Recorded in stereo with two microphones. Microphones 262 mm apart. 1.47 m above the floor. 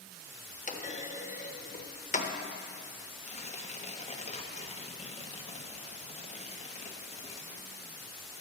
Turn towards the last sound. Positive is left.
turn(degrees=25)  # may be behind; listen again after turning